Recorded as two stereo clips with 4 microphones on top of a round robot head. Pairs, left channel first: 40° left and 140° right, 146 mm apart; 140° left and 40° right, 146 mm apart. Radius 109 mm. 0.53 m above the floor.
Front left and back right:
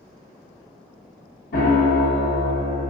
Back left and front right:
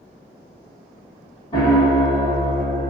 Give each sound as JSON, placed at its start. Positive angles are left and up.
{"t": 1.5, "sound": "a piano", "azimuth_deg": 75, "distance_m": 0.9}